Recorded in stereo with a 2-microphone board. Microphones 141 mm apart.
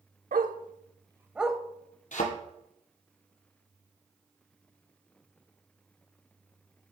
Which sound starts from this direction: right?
A dog barking, at 0.3 s.